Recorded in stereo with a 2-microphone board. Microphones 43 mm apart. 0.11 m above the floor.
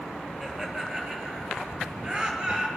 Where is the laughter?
10° right (ahead or behind), 3 m; by 2.7 s 30° right (ahead or behind), 2.5 m.